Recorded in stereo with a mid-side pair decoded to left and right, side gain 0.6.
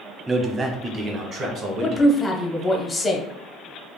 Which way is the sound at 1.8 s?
15° left.